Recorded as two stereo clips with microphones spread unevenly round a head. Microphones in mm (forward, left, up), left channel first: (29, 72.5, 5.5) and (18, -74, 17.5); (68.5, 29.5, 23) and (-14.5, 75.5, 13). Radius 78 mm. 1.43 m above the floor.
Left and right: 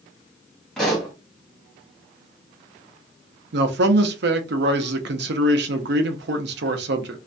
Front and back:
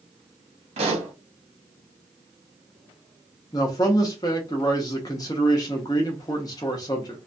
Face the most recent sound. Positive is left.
turn(degrees=-95)